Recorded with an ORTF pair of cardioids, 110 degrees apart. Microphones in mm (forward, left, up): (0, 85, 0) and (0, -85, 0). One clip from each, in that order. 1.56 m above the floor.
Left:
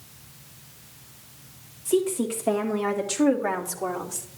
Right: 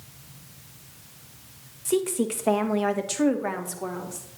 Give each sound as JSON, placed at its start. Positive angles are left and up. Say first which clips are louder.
{"t": 1.9, "sound": "a woman speaking", "louder": "left 1 dB", "azimuth_deg": -45, "distance_m": 2.5}